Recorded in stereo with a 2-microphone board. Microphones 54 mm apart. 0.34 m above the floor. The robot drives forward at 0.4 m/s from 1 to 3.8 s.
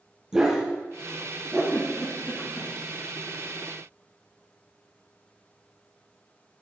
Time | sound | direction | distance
0.3 | a dog barking | 10° right (ahead or behind) | 3.5 m
1.7 | a giggle | 55° left (ahead or behind) | 3.5 m